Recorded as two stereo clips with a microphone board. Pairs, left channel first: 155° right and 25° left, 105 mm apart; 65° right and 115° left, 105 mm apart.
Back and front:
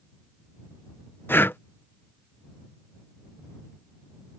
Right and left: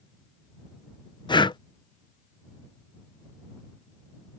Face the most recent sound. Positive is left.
turn(degrees=-95)